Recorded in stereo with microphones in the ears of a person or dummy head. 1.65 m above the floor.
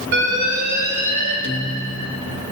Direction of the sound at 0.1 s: 65° right (ahead or behind).